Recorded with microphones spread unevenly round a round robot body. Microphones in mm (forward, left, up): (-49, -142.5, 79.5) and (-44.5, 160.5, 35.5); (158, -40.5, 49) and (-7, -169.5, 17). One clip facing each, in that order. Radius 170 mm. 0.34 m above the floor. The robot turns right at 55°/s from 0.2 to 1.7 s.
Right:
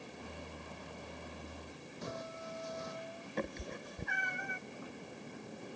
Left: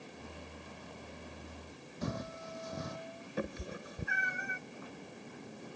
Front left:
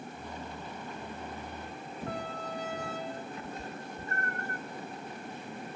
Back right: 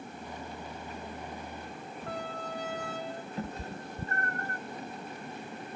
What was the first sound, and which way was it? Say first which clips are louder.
Footsteps: left 5 dB, front left 1 dB; 110° left.